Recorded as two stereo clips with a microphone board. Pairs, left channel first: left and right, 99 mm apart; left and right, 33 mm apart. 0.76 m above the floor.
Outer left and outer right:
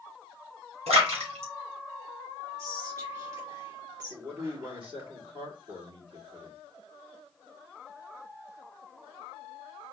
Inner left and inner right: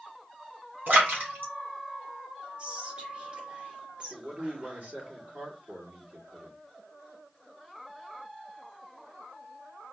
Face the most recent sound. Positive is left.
turn(degrees=-60)  # may be behind; listen again after turning